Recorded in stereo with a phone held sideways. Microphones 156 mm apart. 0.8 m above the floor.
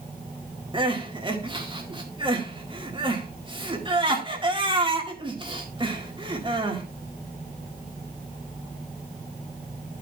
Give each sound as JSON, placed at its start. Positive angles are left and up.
{"t": 0.7, "sound": "crying", "side_deg": -30, "distance_m": 2.0}